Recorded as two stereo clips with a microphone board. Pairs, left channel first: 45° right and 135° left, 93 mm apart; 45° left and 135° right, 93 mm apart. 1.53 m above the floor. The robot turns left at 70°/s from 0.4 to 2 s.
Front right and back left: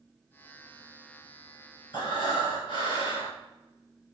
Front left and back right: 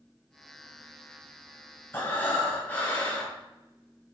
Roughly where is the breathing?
Ahead.